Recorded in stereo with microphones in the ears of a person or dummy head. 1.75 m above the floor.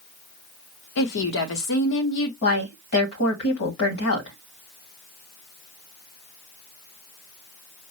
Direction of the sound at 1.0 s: 60° left (ahead or behind).